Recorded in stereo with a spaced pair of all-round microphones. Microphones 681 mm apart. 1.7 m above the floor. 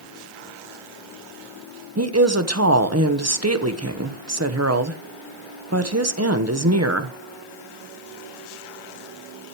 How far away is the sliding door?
I don't hear a sliding door.